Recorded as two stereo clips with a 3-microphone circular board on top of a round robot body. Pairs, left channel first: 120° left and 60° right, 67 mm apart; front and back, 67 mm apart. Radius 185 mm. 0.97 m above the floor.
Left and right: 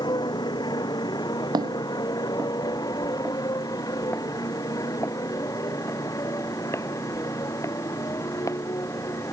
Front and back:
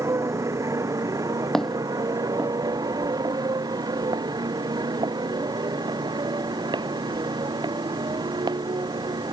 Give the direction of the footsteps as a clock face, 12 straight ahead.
3 o'clock.